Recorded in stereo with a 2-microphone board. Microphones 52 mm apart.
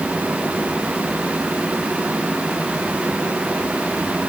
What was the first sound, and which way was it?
Only background noise.